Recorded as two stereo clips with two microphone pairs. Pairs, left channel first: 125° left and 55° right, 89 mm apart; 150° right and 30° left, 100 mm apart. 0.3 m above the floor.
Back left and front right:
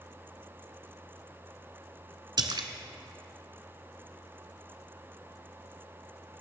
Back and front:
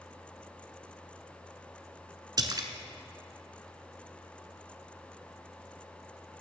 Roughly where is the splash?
Ahead.